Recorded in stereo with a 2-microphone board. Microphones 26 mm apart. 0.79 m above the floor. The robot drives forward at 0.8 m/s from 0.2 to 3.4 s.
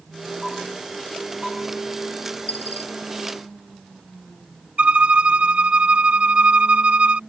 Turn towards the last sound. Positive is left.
turn(degrees=-55)  # may be behind; listen again after turning